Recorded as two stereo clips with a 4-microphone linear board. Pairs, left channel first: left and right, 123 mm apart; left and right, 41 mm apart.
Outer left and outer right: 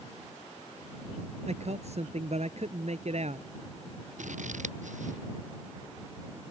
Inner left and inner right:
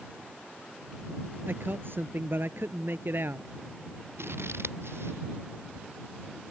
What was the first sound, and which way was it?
A man speaking, 60° right (ahead or behind).